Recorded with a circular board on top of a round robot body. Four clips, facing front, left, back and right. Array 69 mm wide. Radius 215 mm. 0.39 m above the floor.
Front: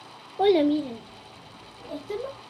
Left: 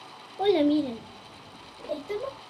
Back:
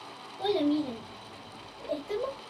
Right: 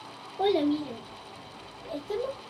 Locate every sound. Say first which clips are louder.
0.4 s a child speaking: left 3 dB, front 7 dB; straight ahead, 0.6 m; by 2.4 s 125° left, 2.5 m